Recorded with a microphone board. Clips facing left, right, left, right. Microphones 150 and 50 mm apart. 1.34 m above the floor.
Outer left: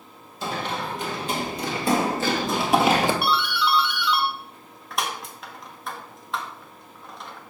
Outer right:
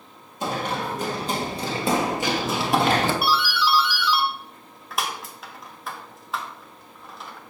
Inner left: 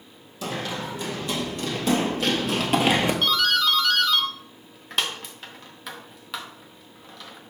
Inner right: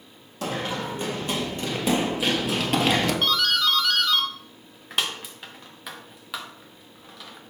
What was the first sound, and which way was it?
Running footsteps, 55° right (ahead or behind).